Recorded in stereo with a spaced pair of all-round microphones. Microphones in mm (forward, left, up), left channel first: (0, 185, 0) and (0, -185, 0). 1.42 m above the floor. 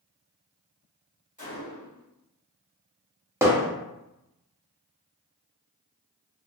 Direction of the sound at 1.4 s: 20° left (ahead or behind).